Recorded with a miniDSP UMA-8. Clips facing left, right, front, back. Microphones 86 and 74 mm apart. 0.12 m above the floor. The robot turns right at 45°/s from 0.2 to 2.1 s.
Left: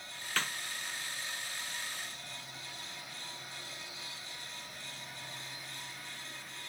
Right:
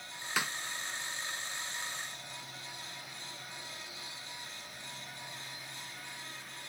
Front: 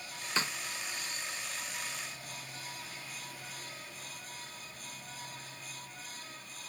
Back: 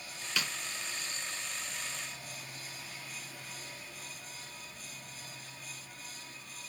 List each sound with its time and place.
0.4 s a snare drum: 25° right, 0.6 m; by 0.5 s 15° right, 0.6 m